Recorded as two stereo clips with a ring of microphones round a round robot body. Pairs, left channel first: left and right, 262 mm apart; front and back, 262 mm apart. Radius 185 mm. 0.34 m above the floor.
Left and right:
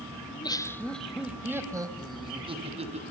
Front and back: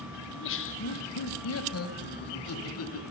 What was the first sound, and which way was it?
Laughter, 30° left.